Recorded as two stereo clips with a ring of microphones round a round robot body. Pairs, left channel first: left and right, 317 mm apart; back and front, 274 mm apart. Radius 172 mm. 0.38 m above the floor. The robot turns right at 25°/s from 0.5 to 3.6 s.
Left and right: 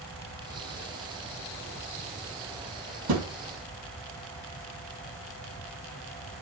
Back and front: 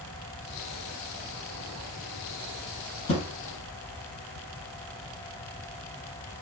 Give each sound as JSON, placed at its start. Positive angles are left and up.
{"t": 3.1, "sound": "a thud", "azimuth_deg": -130, "distance_m": 3.0}